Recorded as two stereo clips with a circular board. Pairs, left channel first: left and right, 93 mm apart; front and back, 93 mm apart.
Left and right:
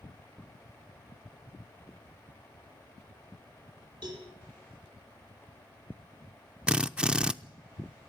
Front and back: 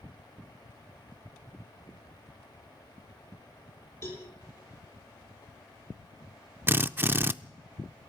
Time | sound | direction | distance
4.0 | a cowbell | 60° right | 10 m
6.7 | a drill | 160° right | 0.6 m